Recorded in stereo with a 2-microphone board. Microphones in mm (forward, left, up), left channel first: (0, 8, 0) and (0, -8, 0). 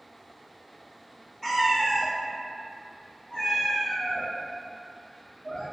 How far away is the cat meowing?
About 0.7 m.